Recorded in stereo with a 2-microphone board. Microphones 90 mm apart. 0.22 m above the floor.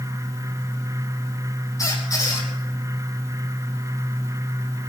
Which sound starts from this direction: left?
A squeak, at 1.8 s.